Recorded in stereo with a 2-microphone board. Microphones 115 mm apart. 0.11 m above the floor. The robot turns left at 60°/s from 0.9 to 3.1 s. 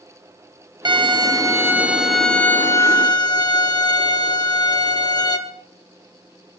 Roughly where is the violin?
Right.